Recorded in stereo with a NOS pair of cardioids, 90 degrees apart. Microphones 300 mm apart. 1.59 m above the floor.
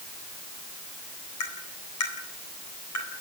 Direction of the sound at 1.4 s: 65° left.